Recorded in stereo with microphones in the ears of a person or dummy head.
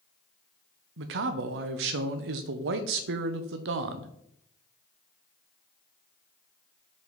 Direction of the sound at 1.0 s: 70° right (ahead or behind).